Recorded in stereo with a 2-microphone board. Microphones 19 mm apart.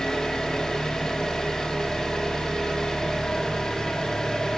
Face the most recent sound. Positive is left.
turn(degrees=45)  # may be behind; listen again after turning